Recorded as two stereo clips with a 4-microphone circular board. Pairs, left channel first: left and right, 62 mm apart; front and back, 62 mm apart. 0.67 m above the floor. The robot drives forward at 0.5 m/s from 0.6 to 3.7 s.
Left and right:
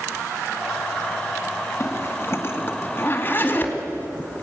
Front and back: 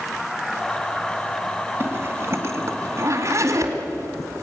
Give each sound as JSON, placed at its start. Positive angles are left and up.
{"t": 1.8, "sound": "a zipper", "azimuth_deg": 135, "distance_m": 1.6}